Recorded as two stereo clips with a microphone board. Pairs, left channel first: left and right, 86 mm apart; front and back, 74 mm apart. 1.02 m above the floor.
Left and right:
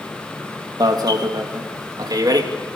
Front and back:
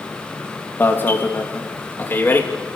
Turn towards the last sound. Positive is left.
turn(degrees=-60)